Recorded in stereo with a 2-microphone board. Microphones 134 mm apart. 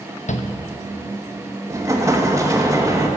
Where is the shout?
60° left (ahead or behind), 0.8 m.